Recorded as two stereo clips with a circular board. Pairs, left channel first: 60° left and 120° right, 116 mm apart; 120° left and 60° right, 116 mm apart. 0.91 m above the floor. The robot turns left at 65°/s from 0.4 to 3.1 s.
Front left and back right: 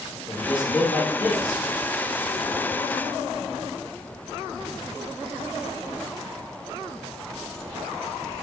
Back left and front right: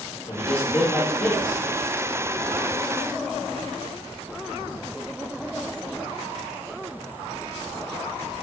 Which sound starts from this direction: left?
A man speaking, at 0.3 s.